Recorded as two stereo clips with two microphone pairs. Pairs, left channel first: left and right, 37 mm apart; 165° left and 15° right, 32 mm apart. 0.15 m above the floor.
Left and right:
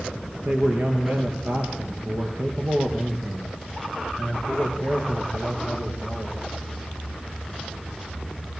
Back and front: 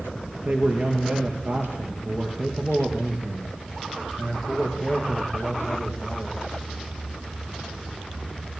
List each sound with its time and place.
0.5 s a man speaking: 60° right, 3 m; by 6.4 s 80° right, 6 m